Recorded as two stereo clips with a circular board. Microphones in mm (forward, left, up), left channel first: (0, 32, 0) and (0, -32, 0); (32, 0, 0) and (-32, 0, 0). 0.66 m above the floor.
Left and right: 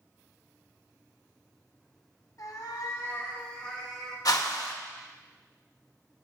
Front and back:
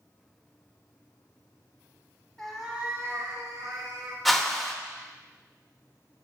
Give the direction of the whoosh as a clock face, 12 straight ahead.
9 o'clock.